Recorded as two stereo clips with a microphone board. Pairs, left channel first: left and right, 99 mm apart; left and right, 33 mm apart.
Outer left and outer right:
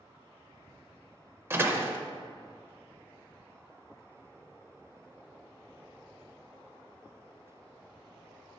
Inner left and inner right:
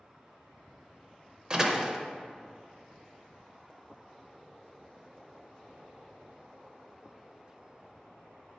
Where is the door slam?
25° right (ahead or behind), 0.6 m.